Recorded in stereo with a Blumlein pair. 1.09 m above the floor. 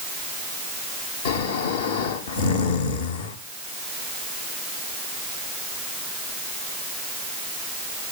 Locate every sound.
1.2 s snoring: 60° left, 1.4 m